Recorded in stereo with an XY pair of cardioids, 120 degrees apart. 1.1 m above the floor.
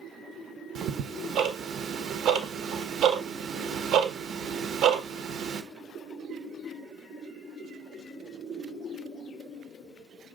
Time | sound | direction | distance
0.8 | ticking | 65° right | 0.7 m